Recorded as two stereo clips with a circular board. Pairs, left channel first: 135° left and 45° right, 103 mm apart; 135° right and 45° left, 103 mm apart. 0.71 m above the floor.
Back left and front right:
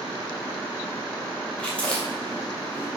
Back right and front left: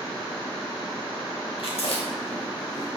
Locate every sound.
1.6 s chewing: 145° right, 2 m